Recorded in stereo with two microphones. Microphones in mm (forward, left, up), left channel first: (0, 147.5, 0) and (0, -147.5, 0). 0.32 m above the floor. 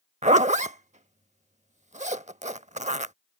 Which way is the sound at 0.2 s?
25° right (ahead or behind).